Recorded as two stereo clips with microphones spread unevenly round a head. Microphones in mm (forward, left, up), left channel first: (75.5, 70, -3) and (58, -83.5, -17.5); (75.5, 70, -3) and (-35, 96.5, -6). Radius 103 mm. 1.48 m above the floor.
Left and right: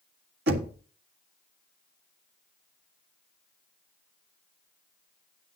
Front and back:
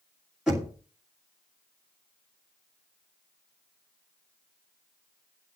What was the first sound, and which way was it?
Knocking, 105° right.